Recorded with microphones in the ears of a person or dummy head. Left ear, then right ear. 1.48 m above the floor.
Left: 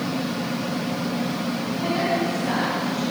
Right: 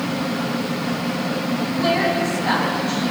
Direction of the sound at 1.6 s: 30° right (ahead or behind).